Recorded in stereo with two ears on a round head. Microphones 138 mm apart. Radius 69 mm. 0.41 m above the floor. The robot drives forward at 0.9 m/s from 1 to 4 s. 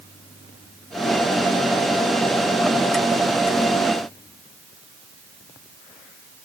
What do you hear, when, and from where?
Only background noise.